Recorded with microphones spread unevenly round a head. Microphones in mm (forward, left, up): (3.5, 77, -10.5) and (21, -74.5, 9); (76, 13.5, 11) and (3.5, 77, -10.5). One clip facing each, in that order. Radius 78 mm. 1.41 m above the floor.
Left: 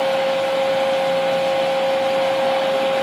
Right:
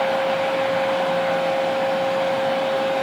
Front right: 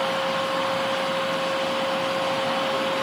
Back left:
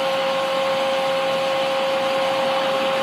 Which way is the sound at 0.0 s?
115° left.